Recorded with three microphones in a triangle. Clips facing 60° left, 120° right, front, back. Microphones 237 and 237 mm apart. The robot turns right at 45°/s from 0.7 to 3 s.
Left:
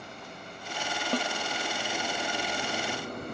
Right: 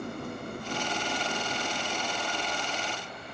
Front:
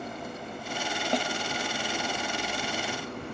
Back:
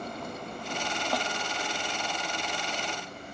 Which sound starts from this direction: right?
An engine running, at 0.0 s.